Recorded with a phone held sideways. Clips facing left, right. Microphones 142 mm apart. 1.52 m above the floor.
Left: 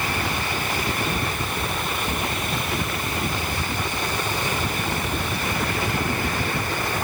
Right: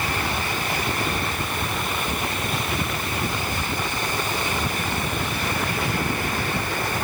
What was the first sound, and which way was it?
Only background noise.